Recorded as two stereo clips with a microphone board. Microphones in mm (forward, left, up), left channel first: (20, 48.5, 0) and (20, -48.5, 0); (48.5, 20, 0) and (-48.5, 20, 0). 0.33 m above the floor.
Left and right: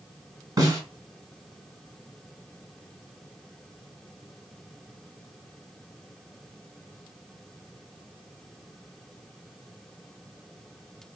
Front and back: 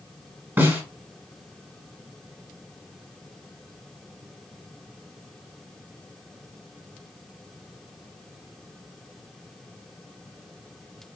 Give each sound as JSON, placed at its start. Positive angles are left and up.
{"t": 0.6, "sound": "a snare drum", "azimuth_deg": -115, "distance_m": 1.7}